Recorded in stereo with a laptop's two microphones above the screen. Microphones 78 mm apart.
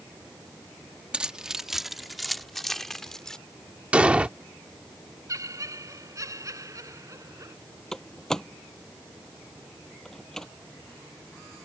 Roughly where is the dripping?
No dripping in this recording.